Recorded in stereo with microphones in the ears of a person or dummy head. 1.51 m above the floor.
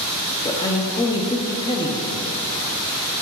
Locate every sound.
0.4 s a man speaking: 25° left (ahead or behind), 0.9 m